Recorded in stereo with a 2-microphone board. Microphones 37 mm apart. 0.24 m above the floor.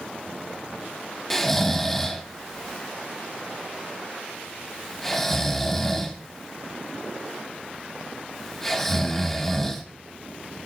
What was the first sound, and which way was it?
Snoring, 10° left (ahead or behind).